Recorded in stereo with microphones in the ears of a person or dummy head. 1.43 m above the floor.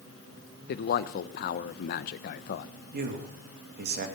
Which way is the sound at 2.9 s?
50° right (ahead or behind).